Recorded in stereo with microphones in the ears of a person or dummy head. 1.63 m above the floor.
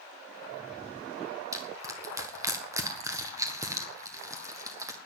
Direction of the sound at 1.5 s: 15° right (ahead or behind).